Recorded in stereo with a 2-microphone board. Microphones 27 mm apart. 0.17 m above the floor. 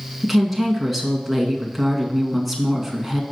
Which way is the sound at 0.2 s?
Centre (ahead or behind).